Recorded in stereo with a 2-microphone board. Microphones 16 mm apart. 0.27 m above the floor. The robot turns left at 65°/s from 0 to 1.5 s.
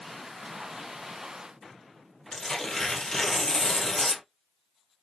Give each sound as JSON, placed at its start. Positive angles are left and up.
{"t": 2.3, "sound": "tearing paper", "side_deg": 20, "distance_m": 1.5}